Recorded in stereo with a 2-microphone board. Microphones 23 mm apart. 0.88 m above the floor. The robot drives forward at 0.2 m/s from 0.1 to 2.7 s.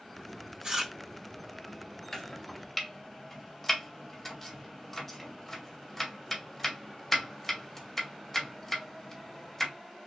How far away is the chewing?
About 2.5 m.